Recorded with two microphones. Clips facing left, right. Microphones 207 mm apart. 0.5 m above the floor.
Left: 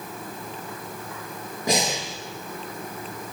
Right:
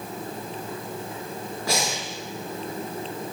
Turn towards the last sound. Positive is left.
turn(degrees=20)  # may be behind; listen again after turning